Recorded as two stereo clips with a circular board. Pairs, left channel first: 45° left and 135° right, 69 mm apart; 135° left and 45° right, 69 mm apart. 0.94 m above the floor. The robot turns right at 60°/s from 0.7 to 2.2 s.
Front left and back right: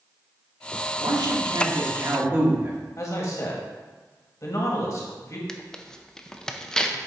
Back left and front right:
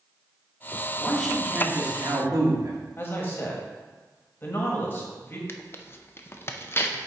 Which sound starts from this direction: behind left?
Tearing paper, at 5.5 s.